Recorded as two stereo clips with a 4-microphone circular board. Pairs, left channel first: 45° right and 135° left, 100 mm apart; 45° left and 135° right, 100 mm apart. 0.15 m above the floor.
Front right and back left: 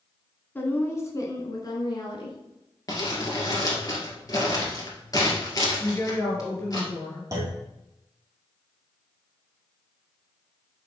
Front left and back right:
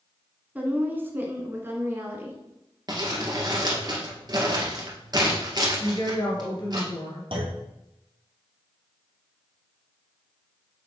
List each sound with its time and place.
0.6 s a woman speaking: 85° right, 1.4 m; by 2.4 s 75° right, 2 m
2.9 s crumpling: 90° right, 2.0 m
5.8 s a woman speaking: 15° left, 3 m
7.3 s a clunk: 165° right, 1.9 m